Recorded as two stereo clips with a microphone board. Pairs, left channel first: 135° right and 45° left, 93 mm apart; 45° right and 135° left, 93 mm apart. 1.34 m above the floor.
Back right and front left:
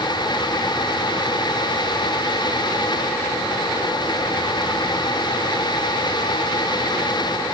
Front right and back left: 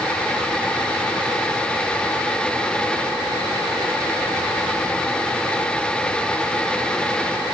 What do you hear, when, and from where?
Only background noise.